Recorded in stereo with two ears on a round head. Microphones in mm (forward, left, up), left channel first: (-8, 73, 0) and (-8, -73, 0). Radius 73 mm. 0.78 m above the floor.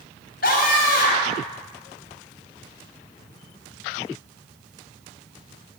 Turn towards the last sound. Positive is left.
turn(degrees=65)  # may be behind; listen again after turning